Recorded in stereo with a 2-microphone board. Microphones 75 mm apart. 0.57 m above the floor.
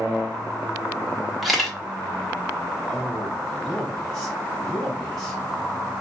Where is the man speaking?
5° left (ahead or behind), 2 m.